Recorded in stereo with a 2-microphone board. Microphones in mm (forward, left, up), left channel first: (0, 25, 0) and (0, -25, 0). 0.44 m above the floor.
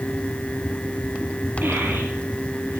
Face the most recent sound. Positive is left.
turn(degrees=-55)  # may be behind; listen again after turning